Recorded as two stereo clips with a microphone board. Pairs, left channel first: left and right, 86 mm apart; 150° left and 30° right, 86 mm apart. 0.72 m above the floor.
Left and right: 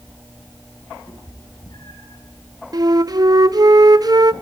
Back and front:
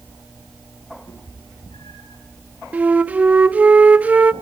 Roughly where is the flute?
Right.